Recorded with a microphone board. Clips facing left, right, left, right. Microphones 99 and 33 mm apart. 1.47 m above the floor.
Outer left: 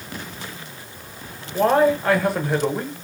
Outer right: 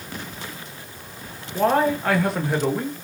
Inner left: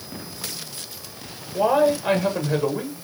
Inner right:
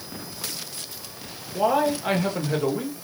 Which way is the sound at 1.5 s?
5° left (ahead or behind).